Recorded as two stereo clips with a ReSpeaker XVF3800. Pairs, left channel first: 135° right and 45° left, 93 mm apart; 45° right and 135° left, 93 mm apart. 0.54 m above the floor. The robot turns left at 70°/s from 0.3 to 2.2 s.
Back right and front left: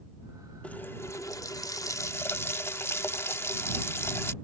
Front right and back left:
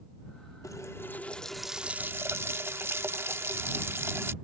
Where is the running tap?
70° right; by 4.3 s 175° right.